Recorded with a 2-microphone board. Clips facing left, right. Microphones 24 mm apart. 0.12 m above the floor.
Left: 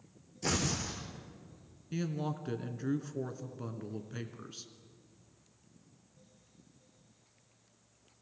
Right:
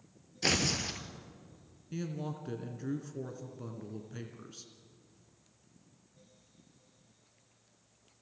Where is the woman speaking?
20° left (ahead or behind), 1.7 m.